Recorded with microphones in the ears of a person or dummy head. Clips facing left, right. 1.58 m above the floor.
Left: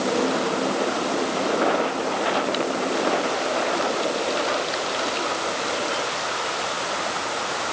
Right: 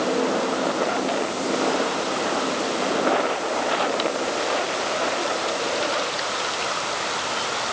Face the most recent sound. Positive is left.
No sound to turn to.